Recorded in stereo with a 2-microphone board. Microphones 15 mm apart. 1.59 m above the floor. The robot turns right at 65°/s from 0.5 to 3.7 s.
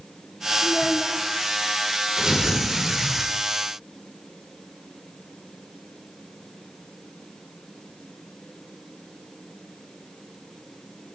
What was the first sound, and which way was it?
A child speaking, 40° left.